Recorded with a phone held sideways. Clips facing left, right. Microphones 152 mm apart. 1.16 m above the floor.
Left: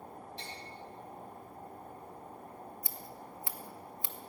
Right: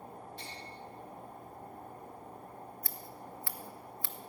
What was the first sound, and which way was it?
Tapping, 45° right (ahead or behind).